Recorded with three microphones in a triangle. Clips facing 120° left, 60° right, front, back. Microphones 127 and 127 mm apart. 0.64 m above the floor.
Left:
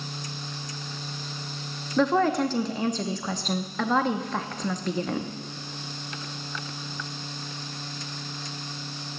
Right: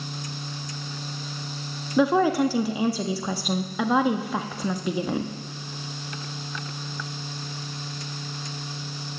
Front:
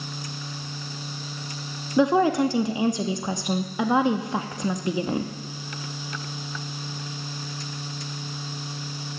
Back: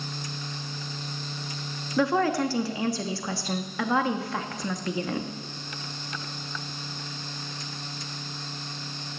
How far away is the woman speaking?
About 0.6 m.